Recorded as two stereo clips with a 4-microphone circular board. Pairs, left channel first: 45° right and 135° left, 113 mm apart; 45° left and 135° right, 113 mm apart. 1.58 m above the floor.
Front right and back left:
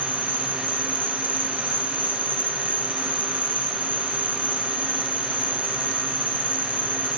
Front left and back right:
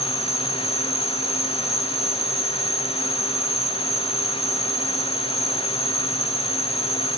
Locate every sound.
0.0 s an insect: 30° left, 6.5 m